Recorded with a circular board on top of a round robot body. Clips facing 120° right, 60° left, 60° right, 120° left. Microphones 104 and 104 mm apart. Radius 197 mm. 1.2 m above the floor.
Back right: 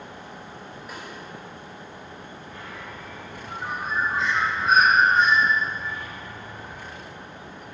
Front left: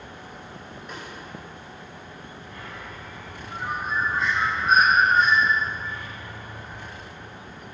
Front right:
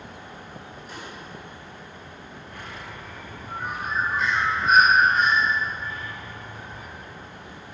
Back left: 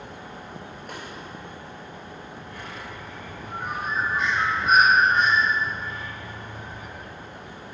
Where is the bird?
115° right, 3 m.